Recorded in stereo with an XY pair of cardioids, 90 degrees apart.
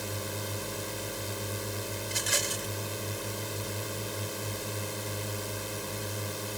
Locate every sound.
0.0 s a drone: straight ahead
2.0 s a rattle: 20° right